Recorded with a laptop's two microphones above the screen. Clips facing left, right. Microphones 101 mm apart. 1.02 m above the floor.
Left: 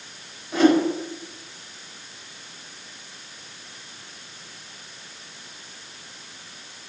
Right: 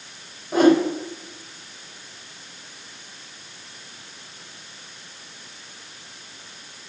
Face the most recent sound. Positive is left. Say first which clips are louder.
# right 2 dB
turn(degrees=-45)  # may be behind; listen again after turning